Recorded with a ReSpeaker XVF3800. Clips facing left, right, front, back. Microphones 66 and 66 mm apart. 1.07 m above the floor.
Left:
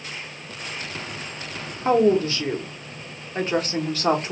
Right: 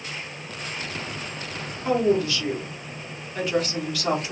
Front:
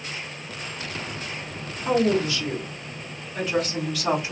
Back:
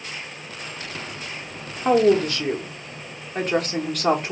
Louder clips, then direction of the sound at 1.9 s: Left 3 dB, back 5 dB; 145° left.